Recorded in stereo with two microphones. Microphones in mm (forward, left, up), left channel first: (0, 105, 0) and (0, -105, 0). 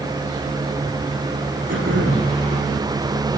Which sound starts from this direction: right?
Throat clearing, at 1.7 s.